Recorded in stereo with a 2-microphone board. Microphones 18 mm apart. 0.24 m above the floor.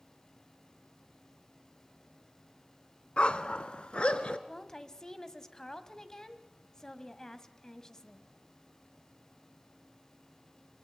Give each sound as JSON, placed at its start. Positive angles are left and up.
{"t": 3.2, "sound": "a dog barking", "side_deg": 65, "distance_m": 1.1}
{"t": 4.5, "sound": "a woman speaking", "side_deg": 30, "distance_m": 1.5}